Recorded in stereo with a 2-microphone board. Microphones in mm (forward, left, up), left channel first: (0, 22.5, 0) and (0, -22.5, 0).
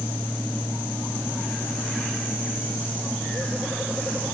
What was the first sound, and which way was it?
Only background noise.